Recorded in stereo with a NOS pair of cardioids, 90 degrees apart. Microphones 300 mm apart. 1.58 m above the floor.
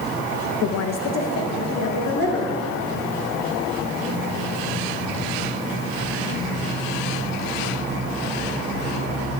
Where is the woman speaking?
60° left, 0.6 m.